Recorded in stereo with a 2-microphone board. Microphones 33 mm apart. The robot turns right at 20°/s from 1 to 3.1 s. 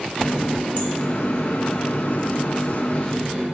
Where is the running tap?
95° left, 1.4 m; by 3.5 s 140° left, 1.4 m.